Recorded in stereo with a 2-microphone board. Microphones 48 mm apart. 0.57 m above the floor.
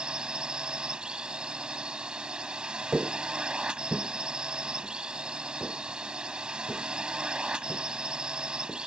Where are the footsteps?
20° right (ahead or behind); by 8.8 s 15° left (ahead or behind).